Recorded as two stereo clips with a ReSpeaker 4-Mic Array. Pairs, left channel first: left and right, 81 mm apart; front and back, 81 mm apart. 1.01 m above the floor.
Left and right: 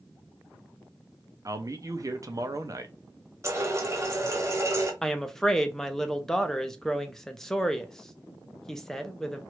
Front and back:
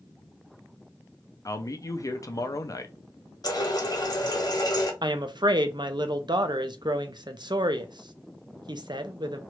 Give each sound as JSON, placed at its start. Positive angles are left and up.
{"t": 1.4, "sound": "a man speaking", "azimuth_deg": -45, "distance_m": 0.5}
{"t": 3.4, "sound": "a running tap", "azimuth_deg": -35, "distance_m": 0.9}
{"t": 5.0, "sound": "a woman speaking", "azimuth_deg": 175, "distance_m": 0.6}